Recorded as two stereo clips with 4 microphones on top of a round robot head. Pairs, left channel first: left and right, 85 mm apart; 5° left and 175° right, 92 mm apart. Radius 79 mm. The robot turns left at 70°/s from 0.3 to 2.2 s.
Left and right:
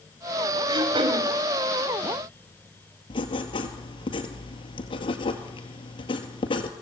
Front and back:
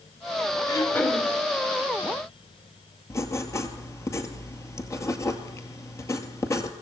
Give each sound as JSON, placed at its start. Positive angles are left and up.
{"t": 0.7, "sound": "throat clearing", "azimuth_deg": -50, "distance_m": 2.5}
{"t": 3.1, "sound": "writing", "azimuth_deg": 65, "distance_m": 2.0}